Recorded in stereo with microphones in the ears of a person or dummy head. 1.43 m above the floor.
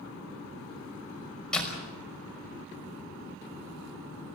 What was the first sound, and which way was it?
A door slam, 5° left (ahead or behind).